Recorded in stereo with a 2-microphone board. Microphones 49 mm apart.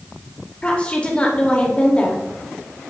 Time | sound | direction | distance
0.6 | a woman speaking | 25° left (ahead or behind) | 0.8 m